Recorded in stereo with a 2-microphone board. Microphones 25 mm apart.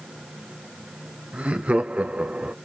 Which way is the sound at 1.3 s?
60° right (ahead or behind).